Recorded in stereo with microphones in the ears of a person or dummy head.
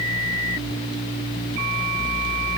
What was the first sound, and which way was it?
Only background noise.